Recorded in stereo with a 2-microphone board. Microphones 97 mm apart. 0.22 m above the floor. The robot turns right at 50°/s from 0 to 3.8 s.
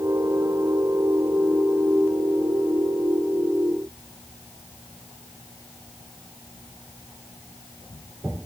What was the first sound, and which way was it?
Only background noise.